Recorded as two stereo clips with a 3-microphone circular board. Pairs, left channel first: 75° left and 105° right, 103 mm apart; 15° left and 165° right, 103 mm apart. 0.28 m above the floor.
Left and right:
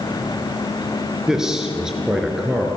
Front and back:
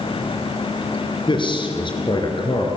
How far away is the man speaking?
About 4 m.